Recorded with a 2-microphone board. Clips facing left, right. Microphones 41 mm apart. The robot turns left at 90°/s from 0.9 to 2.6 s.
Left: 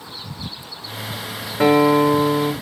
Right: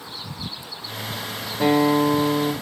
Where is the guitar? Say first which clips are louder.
Left 4 dB; 120° left, 1.5 m; by 2.5 s 35° left, 1.5 m.